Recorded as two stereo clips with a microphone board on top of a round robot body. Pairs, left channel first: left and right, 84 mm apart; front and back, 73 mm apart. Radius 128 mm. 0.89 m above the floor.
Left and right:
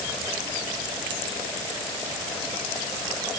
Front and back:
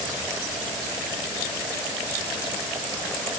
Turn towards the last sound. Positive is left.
No sound to turn to.